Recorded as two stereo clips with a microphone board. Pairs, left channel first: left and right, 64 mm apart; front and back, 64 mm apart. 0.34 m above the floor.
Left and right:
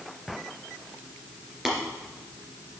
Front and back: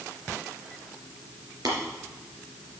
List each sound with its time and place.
1.6 s tapping: 170° right, 3 m